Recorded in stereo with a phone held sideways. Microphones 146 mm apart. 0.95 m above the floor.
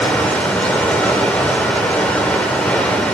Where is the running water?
10° left (ahead or behind), 1.4 m.